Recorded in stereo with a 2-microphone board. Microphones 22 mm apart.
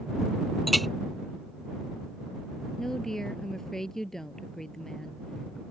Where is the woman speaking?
15° left (ahead or behind).